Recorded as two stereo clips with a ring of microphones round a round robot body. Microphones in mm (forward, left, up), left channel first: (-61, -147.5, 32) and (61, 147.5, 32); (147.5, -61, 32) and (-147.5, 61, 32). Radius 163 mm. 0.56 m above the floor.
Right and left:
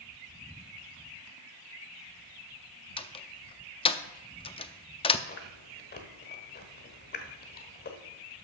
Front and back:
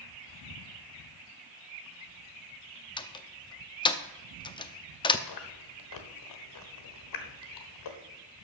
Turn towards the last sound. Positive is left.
turn(degrees=-50)